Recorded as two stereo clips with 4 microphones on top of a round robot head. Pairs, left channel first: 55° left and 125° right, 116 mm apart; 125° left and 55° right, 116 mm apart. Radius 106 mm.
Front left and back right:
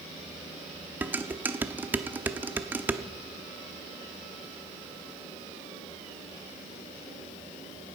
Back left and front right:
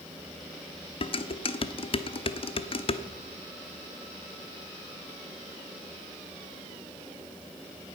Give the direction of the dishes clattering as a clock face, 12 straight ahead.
7 o'clock.